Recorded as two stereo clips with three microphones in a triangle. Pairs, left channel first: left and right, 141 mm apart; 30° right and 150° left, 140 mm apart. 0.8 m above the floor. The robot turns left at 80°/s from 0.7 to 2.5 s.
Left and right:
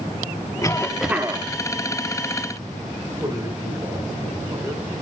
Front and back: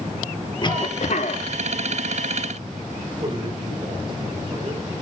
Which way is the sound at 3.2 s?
155° right.